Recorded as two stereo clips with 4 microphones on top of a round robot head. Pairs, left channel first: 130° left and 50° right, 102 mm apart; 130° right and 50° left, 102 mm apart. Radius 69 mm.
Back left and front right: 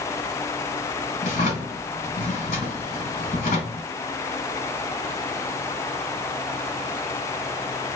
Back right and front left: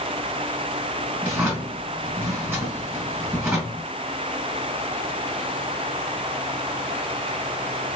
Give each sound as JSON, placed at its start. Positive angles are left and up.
{"t": 1.2, "sound": "a drawer", "azimuth_deg": 120, "distance_m": 1.5}